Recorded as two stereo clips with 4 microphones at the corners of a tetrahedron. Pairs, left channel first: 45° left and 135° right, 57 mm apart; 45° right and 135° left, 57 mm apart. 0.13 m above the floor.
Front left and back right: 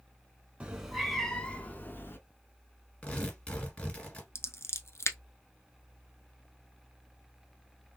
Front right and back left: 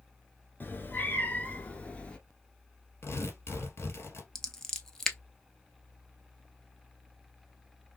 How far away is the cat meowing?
About 0.8 m.